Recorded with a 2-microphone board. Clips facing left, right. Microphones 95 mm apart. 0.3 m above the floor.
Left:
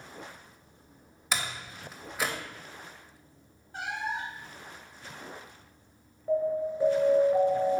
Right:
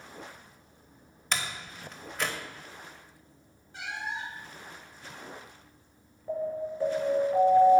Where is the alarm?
15° left (ahead or behind), 1.9 m.